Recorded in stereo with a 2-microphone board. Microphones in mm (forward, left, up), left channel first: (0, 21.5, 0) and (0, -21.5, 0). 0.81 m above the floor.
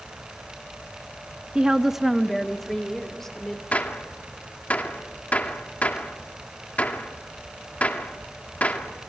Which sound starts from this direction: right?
A woman speaking, at 1.6 s.